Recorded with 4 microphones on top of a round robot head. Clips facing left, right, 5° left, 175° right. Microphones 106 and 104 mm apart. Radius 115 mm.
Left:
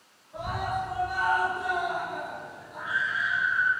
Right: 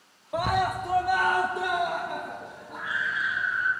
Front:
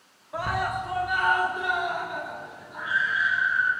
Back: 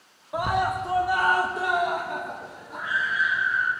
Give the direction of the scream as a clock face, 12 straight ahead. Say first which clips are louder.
Right 5 dB, back 3 dB; 3 o'clock.